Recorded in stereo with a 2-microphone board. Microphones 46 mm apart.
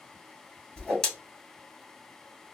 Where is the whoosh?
15° left (ahead or behind), 1.5 m.